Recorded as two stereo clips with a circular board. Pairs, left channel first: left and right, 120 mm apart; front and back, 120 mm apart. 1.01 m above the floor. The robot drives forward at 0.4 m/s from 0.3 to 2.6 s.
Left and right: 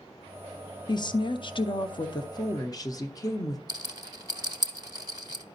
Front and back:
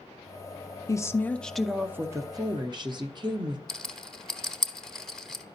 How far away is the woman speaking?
About 0.6 m.